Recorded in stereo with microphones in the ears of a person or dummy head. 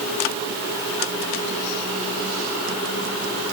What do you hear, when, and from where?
Only background noise.